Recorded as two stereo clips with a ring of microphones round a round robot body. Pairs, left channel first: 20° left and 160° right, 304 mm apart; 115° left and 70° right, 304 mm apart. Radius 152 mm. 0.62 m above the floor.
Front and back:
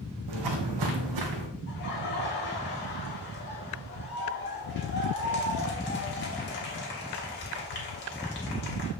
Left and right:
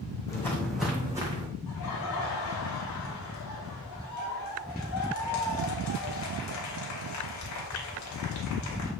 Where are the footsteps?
170° right, 2 m; by 1.5 s 145° right, 2.5 m.